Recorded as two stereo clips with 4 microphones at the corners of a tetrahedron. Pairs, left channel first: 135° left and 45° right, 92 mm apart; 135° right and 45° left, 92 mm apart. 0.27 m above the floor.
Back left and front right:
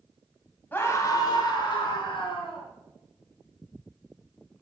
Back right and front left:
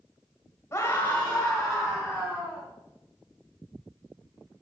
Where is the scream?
170° right, 1.7 m; by 2.6 s 125° left, 3.5 m.